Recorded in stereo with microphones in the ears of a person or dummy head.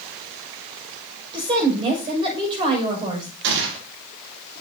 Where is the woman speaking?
30° right (ahead or behind), 6 m.